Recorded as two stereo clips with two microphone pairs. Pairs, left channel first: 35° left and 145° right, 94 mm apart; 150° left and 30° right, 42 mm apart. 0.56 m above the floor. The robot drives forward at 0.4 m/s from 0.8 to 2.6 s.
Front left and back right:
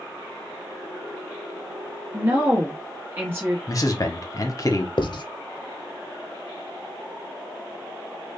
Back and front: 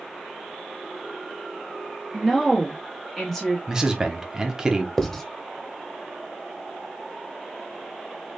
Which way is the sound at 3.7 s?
30° left.